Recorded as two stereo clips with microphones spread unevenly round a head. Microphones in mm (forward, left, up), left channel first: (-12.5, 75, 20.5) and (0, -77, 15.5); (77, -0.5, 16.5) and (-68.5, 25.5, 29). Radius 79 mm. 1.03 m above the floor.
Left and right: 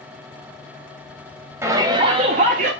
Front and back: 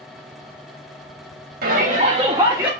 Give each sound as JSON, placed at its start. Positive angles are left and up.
{"t": 1.6, "sound": "a shout", "azimuth_deg": -160, "distance_m": 1.9}